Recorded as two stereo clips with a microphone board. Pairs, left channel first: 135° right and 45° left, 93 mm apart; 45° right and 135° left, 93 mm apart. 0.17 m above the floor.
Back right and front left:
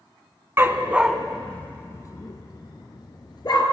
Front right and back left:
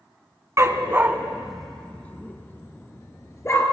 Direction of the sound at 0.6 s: 95° left.